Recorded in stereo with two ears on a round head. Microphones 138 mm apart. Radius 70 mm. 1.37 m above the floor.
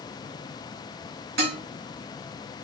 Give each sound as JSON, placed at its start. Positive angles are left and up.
{"t": 1.4, "sound": "dishes clattering", "side_deg": -75, "distance_m": 1.8}